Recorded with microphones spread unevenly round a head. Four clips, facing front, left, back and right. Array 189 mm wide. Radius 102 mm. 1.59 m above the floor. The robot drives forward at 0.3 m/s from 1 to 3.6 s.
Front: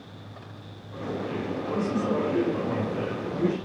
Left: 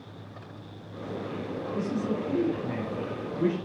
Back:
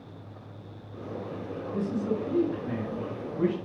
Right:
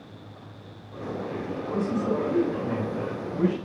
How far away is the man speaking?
About 6.5 m.